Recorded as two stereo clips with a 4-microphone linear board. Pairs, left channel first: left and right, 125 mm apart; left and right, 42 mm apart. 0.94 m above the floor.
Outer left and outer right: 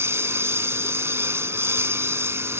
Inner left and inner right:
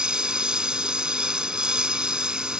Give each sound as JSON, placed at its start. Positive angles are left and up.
{"t": 0.0, "sound": "a lawn mower", "side_deg": -20}